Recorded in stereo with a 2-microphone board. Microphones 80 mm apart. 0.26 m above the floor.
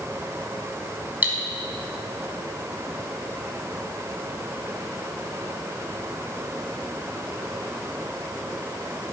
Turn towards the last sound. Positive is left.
turn(degrees=-25)  # may be behind; listen again after turning